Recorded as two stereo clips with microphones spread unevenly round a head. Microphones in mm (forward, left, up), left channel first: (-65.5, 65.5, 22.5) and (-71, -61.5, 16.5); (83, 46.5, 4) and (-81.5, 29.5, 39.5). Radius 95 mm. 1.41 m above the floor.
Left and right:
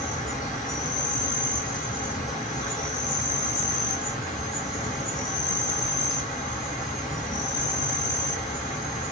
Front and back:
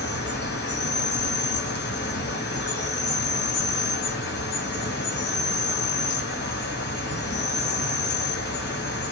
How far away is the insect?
About 2 m.